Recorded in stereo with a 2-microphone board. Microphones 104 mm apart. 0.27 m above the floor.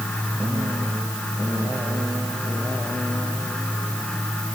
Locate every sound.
Only background noise.